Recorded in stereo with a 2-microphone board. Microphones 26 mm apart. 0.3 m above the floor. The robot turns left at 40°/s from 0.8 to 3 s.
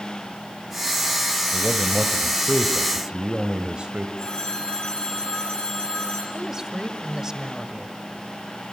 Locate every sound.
1.5 s a man speaking: 15° right, 1.1 m; by 4.1 s 75° right, 1.1 m
4.2 s a phone ringing: 35° left (ahead or behind), 4.5 m
6.3 s a woman speaking: 20° right (ahead or behind), 1.4 m